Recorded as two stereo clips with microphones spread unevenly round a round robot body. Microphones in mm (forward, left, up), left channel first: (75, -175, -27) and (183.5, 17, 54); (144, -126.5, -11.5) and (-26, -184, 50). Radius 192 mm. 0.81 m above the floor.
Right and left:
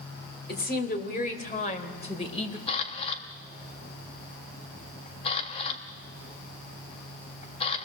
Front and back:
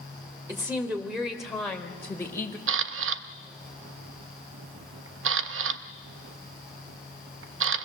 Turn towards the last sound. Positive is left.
turn(degrees=-170)